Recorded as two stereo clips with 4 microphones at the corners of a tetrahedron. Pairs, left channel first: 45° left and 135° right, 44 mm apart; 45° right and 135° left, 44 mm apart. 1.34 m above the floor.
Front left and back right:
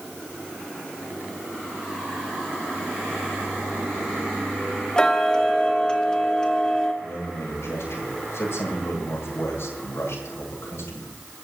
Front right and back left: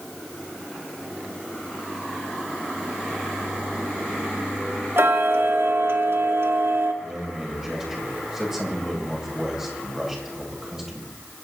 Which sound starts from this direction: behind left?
Ticking, at 5.0 s.